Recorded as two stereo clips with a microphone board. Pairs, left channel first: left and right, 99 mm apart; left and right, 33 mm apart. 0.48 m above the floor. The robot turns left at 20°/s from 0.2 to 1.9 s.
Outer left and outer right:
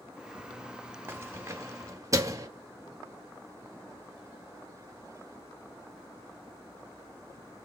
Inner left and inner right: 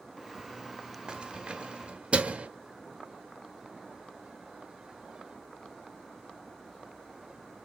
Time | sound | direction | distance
1.1 | keys jangling | 25° right (ahead or behind) | 0.8 m